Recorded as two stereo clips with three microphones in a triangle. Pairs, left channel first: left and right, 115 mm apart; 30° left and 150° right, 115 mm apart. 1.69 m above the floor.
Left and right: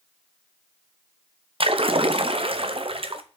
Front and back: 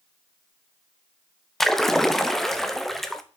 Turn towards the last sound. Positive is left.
turn(degrees=-55)